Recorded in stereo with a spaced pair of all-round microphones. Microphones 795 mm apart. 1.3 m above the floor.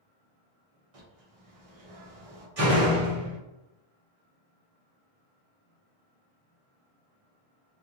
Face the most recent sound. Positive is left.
turn(degrees=-50)  # may be behind; listen again after turning